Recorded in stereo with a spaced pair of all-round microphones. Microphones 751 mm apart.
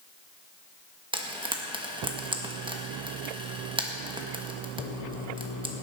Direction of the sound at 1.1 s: 5° right (ahead or behind).